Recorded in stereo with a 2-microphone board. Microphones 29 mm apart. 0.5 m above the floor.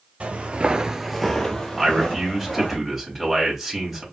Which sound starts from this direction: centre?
A man speaking, at 1.8 s.